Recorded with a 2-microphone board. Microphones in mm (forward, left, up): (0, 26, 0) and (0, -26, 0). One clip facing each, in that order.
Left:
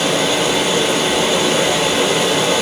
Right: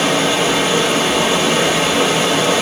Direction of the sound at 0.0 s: 35° right (ahead or behind).